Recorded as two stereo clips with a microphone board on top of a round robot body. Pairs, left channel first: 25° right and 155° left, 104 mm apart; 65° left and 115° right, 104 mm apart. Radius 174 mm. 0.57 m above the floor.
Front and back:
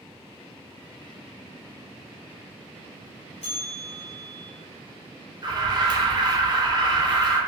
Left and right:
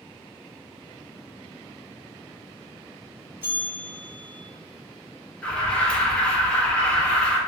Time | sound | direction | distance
3.4 | a bell | 40° right | 0.9 m
5.4 | an alarm | 145° left | 0.7 m